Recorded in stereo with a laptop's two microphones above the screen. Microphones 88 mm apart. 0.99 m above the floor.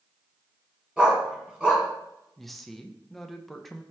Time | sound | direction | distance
1.0 | a dog barking | 10° right (ahead or behind) | 2.5 m
2.4 | a woman speaking | 5° left (ahead or behind) | 0.6 m